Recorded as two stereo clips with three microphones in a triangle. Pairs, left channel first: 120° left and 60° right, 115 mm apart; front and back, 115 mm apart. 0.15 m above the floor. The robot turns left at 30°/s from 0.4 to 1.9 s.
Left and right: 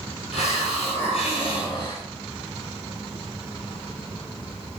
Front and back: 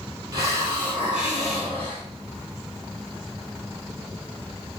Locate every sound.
0.3 s a hiss: 120° left, 1.6 m; by 2.0 s 75° left, 1.6 m